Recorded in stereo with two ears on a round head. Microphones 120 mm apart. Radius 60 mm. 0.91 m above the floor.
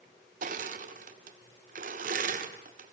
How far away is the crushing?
About 1.6 m.